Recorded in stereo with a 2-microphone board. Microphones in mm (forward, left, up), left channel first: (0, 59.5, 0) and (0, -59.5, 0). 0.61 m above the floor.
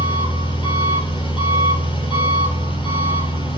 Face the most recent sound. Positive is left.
turn(degrees=45)  # may be behind; listen again after turning